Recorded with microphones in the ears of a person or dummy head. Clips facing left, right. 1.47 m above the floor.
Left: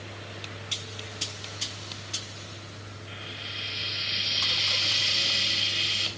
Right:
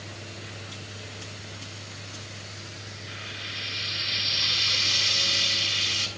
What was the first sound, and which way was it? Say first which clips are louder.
Frying: even; 60° right (ahead or behind).